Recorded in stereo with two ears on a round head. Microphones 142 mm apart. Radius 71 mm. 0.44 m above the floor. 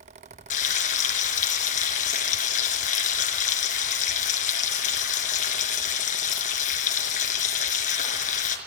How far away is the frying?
About 4 m.